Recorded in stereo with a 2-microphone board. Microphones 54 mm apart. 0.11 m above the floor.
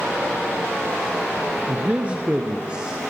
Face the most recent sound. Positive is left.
turn(degrees=-20)  # may be behind; listen again after turning